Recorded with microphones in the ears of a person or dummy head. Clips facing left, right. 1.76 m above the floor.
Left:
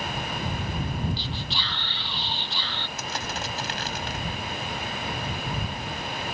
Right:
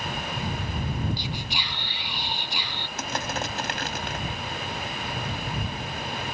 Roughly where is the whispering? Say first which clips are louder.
Even; centre.